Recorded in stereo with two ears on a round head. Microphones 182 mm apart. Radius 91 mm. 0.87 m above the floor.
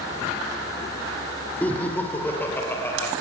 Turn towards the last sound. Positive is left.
turn(degrees=15)  # may be behind; listen again after turning